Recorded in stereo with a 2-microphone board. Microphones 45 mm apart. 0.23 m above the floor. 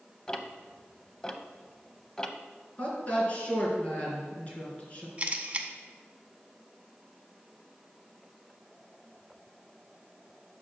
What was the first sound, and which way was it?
Ticking, 15° left (ahead or behind).